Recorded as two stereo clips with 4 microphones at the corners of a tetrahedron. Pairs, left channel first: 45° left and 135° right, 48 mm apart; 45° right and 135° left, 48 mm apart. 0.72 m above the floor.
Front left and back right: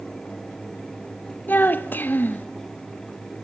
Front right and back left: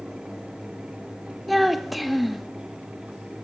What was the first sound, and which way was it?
A child speaking, 45° left.